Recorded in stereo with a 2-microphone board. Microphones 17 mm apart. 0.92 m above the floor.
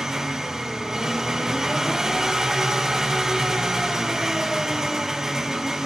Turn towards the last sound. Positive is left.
turn(degrees=-30)  # may be behind; listen again after turning